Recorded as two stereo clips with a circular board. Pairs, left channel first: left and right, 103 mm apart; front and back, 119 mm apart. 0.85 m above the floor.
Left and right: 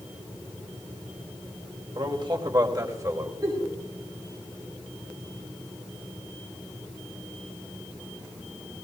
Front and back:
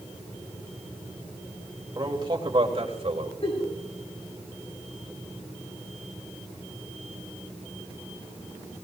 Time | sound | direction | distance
1.9 | a man speaking | 125° right | 3.5 m
3.4 | a giggle | 40° right | 7 m